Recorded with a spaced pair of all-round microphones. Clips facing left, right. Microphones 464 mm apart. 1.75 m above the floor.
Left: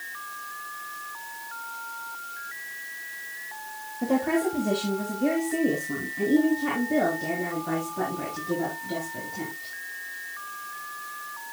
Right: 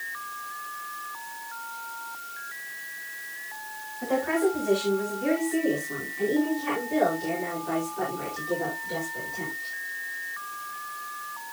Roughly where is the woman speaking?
Left.